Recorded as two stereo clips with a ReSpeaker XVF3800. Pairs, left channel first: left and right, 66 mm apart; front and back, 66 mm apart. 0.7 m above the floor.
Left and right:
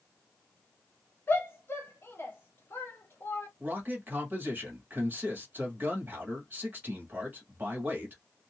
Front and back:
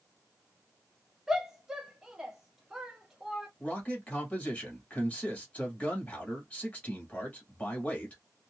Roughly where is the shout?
Left.